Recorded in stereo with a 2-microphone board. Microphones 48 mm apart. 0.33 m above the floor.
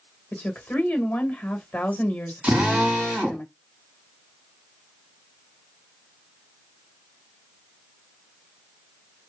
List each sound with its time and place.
0.3 s a woman speaking: 35° left (ahead or behind), 1.2 m
2.4 s a drill: 30° right (ahead or behind), 2.5 m